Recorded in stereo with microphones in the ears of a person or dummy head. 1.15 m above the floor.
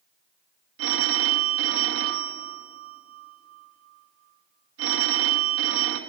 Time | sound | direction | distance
0.8 | a phone ringing | 75° right (ahead or behind) | 1.1 m